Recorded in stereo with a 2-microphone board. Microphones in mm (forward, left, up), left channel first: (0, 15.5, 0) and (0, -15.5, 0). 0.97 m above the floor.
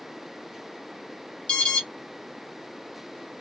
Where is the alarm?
35° left (ahead or behind), 1.1 m.